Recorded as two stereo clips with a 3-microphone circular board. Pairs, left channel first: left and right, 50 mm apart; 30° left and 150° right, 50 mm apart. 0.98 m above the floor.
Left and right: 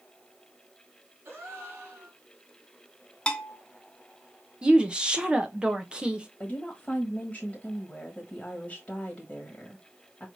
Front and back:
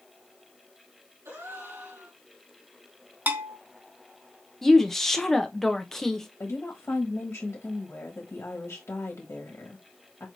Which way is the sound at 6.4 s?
30° left.